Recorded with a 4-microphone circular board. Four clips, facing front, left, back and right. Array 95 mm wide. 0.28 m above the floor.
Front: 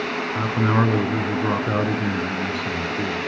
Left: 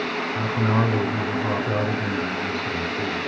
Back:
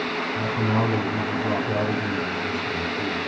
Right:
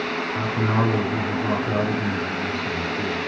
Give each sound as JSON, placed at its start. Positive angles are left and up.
{"t": 0.3, "sound": "a man speaking", "azimuth_deg": 0, "distance_m": 2.5}